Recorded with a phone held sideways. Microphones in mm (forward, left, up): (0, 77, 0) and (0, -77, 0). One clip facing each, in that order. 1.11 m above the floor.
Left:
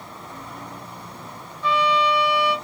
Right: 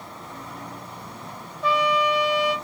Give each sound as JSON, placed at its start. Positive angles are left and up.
{"t": 1.6, "sound": "a trumpet", "side_deg": -45, "distance_m": 1.1}